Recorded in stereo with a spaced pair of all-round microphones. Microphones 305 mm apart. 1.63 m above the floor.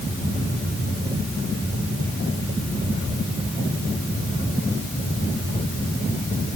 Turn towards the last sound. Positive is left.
No sound to turn to.